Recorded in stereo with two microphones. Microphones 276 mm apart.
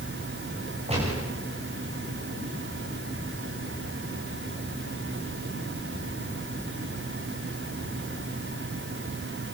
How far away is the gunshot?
About 8.5 m.